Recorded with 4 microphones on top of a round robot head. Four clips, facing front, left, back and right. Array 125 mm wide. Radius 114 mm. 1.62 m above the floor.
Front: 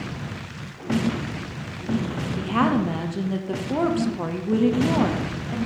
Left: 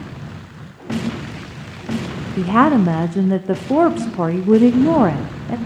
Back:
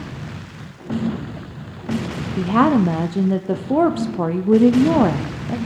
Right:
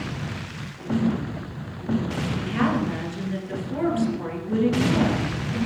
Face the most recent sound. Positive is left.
turn(degrees=120)